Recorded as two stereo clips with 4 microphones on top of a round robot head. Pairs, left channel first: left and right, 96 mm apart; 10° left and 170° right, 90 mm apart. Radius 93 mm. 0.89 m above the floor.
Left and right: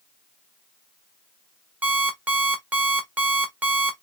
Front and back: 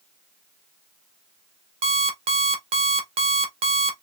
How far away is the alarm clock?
About 1.0 m.